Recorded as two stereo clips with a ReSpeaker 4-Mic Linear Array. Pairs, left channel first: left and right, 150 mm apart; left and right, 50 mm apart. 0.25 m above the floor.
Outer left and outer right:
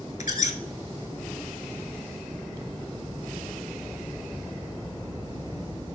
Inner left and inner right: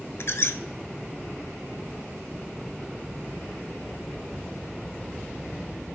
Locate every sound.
0.2 s a squeak: 55° left (ahead or behind), 0.6 m